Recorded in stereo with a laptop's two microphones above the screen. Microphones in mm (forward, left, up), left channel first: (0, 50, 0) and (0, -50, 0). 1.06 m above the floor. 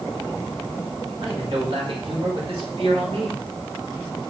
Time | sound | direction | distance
1.2 | a man speaking | 60° right (ahead or behind) | 1.6 m